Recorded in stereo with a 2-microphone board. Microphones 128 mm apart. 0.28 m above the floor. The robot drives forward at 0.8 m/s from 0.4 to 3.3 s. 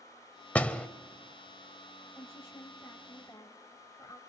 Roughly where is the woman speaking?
Left.